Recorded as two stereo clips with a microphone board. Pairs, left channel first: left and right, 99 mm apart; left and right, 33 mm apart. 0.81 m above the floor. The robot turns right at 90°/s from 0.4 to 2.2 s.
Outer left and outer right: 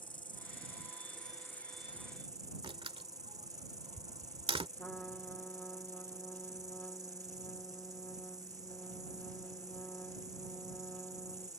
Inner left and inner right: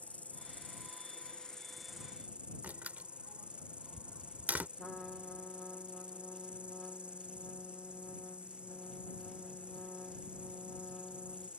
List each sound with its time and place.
0.0 s an insect: 55° left; by 11.6 s 140° right
2.6 s a door slam: 70° right (ahead or behind)
4.8 s a trumpet: 10° left (ahead or behind)